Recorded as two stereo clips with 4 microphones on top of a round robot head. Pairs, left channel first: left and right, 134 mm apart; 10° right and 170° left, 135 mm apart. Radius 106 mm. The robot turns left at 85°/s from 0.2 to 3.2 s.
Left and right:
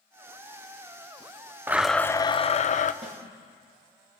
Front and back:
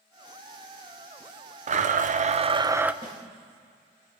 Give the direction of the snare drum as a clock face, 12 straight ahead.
4 o'clock.